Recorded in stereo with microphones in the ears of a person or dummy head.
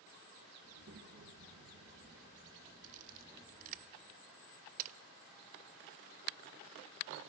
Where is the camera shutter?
45° right (ahead or behind), 0.6 m.